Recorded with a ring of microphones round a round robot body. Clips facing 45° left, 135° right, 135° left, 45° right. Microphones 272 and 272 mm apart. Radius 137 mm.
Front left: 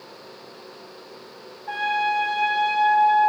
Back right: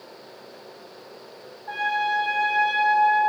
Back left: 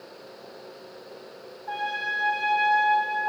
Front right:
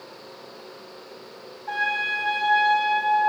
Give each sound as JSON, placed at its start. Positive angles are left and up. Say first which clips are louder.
{"t": 1.7, "sound": "a trumpet", "louder": "front left 2 dB, front right 2 dB", "azimuth_deg": 5, "distance_m": 1.2}